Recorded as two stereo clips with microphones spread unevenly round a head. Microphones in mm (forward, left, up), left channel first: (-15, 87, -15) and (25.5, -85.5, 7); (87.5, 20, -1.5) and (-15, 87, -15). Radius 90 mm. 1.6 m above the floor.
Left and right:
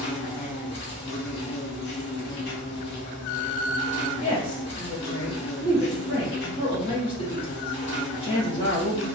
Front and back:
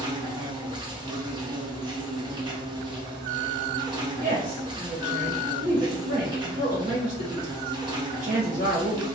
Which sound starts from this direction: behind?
A woman speaking, at 4.2 s.